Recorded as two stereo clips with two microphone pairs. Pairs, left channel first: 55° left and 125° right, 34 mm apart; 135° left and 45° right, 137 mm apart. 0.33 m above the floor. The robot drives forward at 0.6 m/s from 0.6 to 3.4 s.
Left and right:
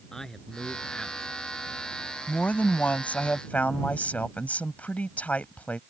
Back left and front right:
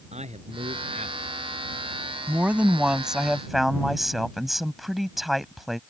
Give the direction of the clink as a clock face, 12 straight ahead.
I don't hear a clink.